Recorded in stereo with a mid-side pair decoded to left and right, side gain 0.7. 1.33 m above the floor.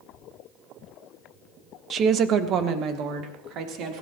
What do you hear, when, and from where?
1.9 s a woman speaking: 40° right, 1.3 m; by 4.0 s 55° right, 4 m